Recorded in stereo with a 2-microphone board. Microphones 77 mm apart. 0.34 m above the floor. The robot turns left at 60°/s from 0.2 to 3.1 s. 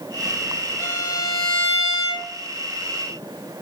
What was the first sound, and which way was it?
A violin, 145° right.